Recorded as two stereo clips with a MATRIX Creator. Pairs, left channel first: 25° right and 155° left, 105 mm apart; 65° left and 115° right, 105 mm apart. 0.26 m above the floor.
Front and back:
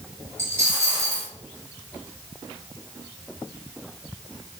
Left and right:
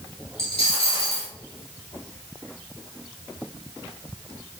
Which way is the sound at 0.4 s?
90° left.